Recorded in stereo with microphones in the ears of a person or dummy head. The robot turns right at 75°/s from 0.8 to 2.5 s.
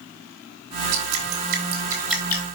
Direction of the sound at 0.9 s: 85° right.